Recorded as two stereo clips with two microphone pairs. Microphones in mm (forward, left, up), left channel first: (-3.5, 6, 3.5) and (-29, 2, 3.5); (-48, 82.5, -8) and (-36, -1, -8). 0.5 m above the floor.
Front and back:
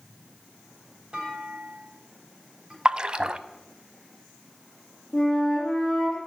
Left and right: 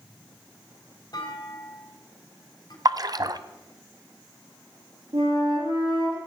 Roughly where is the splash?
Behind right.